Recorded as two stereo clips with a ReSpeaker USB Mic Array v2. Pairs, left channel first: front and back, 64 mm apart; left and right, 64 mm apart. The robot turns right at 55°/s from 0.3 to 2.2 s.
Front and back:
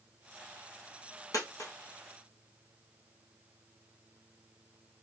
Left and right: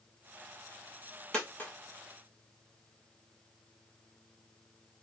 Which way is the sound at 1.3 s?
15° left.